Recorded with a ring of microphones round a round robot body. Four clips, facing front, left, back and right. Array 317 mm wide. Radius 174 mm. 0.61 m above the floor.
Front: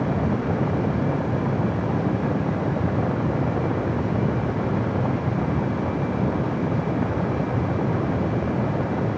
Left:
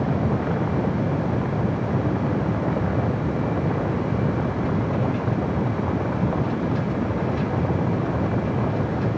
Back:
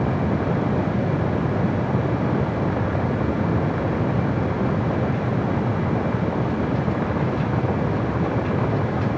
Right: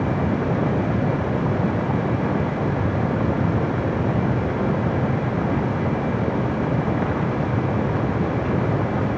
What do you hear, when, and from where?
Only background noise.